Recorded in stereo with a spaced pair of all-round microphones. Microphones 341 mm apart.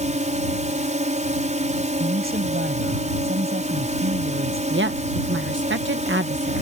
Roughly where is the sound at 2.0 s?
Right.